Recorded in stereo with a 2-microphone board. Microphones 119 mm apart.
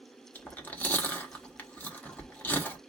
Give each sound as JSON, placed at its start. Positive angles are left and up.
{"t": 0.3, "sound": "chewing", "side_deg": 15, "distance_m": 1.0}